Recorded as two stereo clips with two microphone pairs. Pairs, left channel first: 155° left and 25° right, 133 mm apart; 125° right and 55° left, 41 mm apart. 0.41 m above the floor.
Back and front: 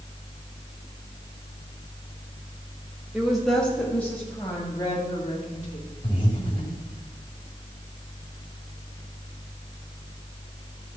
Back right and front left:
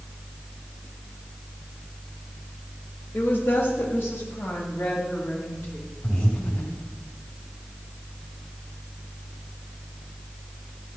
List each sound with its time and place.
3.1 s a woman speaking: 110° right, 1.6 m; by 5.8 s 140° right, 3 m
6.0 s breathing: 155° right, 3.5 m